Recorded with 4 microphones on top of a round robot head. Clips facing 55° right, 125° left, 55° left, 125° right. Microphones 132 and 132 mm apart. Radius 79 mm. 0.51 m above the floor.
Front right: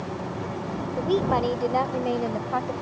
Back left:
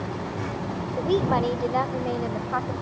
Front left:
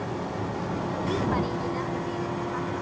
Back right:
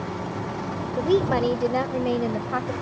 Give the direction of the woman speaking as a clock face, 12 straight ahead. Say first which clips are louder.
Even, back right 8 dB; 5 o'clock.